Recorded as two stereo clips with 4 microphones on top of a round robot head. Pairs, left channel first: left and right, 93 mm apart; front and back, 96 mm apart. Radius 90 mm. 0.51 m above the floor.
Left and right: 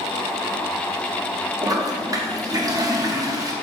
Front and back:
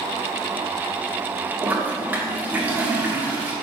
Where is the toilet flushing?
115° right, 1.1 m.